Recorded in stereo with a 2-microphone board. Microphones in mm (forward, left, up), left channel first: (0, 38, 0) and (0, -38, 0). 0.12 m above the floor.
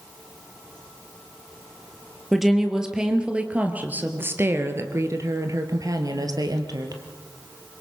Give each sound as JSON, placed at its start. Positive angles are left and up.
{"t": 2.3, "sound": "a woman speaking", "side_deg": 0, "distance_m": 2.5}